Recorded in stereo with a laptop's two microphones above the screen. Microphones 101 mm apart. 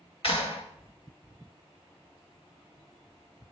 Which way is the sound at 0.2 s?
60° left (ahead or behind).